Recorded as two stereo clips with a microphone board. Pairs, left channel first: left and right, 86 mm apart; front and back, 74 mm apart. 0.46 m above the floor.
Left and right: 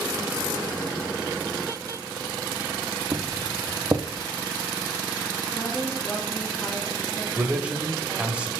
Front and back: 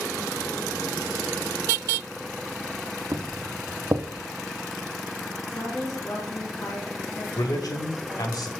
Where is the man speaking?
15° right, 1.5 m.